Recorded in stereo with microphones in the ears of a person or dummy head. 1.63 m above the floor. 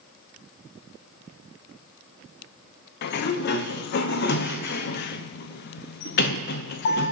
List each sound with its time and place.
3.0 s a sliding door: 55° left (ahead or behind), 0.9 m